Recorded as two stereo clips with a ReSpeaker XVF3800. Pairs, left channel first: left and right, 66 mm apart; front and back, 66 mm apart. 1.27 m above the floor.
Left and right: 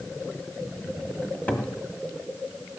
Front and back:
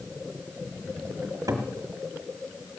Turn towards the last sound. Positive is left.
turn(degrees=155)